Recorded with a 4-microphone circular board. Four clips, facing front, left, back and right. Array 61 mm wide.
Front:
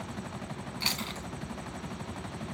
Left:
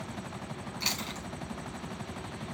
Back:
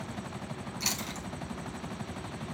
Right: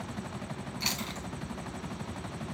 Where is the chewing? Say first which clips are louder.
Even, front 3 dB; 10° left, 1.3 m.